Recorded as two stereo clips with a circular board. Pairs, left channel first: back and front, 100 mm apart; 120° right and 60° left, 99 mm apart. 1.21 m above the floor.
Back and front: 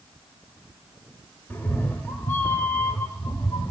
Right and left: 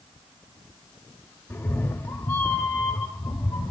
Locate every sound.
1.5 s a cat meowing: 140° right, 1.0 m